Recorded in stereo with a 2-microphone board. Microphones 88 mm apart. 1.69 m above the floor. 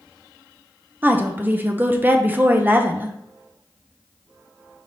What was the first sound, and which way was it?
A woman speaking, 20° right (ahead or behind).